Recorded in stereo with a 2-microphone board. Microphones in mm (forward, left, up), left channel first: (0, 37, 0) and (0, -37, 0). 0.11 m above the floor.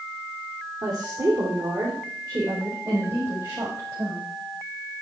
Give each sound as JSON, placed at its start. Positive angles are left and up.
{"t": 0.8, "sound": "a woman speaking", "side_deg": -60, "distance_m": 4.5}